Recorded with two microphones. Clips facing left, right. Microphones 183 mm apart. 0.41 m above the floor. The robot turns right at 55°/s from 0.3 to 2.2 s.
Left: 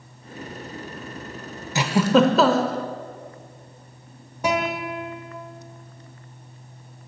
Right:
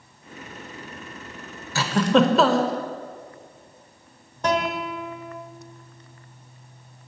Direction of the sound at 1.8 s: 20° left (ahead or behind).